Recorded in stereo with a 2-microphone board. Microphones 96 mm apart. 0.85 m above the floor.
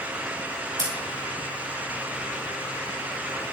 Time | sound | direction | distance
0.8 | scissors | 35° right (ahead or behind) | 5 m